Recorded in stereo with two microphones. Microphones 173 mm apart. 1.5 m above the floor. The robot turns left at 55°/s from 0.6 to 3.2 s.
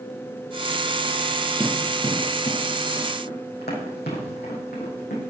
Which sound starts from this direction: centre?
Running footsteps, at 1.6 s.